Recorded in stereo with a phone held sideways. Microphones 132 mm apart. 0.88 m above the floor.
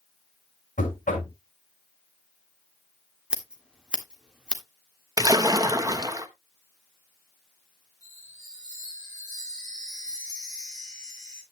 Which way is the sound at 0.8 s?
75° left (ahead or behind).